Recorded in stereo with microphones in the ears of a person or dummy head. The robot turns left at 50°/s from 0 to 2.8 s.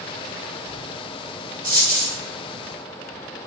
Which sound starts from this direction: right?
A dropped coin, at 1.6 s.